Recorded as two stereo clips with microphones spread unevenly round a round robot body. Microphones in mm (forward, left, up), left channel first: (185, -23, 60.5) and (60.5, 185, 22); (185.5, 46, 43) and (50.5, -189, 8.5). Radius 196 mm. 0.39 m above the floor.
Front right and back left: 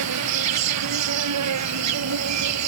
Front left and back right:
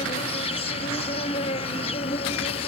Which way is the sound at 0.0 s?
135° left.